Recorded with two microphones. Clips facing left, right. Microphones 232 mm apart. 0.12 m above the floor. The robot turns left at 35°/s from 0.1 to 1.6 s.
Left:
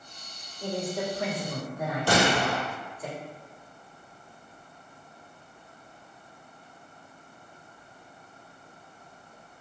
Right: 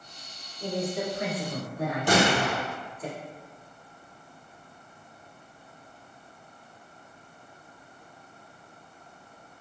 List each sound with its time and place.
0.6 s a woman speaking: 5° right, 1.6 m; by 3.1 s 40° right, 1.6 m
2.1 s a gunshot: 15° right (ahead or behind), 1.3 m